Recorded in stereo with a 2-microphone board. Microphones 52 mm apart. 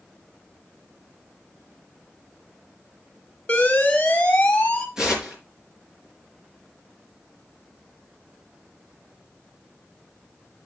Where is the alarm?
30° left (ahead or behind), 1.7 m.